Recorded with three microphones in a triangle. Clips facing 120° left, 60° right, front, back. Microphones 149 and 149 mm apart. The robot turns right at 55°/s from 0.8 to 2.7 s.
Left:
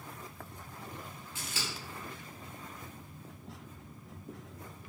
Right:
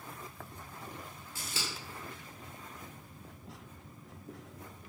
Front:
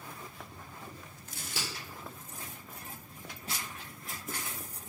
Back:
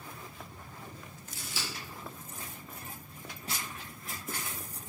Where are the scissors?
15° right, 1.1 m; by 1.7 s 5° left, 1.1 m.